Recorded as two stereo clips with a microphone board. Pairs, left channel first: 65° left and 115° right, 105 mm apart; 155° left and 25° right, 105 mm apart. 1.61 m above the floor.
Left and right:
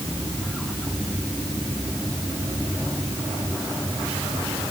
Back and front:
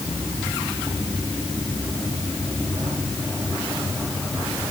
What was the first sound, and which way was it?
Only background noise.